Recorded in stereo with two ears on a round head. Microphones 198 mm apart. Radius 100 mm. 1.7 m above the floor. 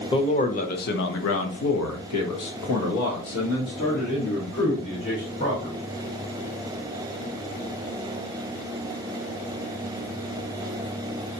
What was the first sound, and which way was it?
A man speaking, 25° left (ahead or behind).